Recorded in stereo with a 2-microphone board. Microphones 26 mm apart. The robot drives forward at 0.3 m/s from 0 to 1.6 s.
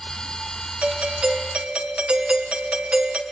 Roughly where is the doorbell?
Right.